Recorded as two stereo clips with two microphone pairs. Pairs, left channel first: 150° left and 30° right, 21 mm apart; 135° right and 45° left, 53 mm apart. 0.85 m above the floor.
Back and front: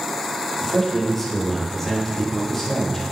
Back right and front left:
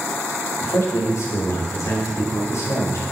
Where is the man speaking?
130° right, 2 m.